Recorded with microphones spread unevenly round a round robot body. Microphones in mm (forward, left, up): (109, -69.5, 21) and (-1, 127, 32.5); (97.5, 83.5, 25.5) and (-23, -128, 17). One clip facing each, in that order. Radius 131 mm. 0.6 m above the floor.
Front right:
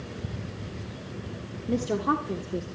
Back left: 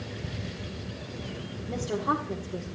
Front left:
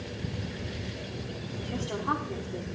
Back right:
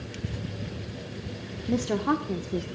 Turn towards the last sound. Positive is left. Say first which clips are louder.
# front right 4 dB, back right 9 dB
turn(degrees=-115)